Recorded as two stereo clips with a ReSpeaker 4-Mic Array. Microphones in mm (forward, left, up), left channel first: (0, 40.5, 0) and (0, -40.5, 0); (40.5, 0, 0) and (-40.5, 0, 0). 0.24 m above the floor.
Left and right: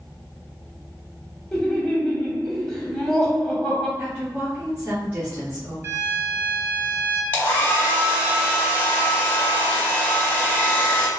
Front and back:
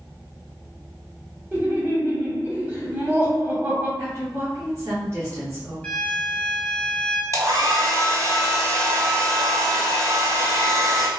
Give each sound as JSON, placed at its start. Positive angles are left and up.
{"t": 1.5, "sound": "laughter", "azimuth_deg": 165, "distance_m": 1.0}
{"t": 4.0, "sound": "a woman speaking", "azimuth_deg": -150, "distance_m": 1.6}
{"t": 5.8, "sound": "a violin", "azimuth_deg": -60, "distance_m": 1.0}
{"t": 7.3, "sound": "a hair dryer", "azimuth_deg": 145, "distance_m": 1.0}